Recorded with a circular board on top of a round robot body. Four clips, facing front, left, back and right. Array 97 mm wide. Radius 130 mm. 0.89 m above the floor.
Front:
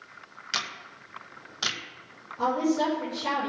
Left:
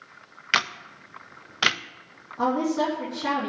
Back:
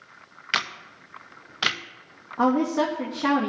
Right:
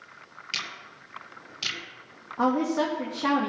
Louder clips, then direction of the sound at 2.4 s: Even, back 3 dB; 155° right.